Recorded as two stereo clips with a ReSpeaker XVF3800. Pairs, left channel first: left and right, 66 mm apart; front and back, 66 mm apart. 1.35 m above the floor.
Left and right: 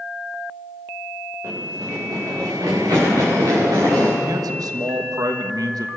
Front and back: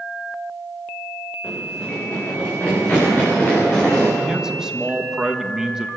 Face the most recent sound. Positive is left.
turn(degrees=-100)